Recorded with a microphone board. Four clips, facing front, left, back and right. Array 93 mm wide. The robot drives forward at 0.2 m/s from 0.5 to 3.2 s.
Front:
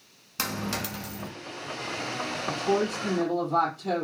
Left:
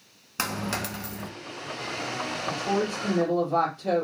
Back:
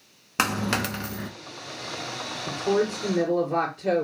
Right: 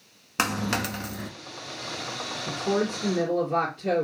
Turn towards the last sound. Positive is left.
turn(degrees=-150)